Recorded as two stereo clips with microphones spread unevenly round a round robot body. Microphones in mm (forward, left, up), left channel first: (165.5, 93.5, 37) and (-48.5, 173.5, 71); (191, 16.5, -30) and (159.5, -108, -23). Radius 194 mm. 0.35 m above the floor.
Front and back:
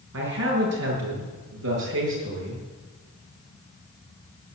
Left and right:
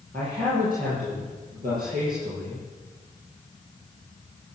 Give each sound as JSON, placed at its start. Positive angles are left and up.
{"t": 0.1, "sound": "a man speaking", "azimuth_deg": -170, "distance_m": 6.0}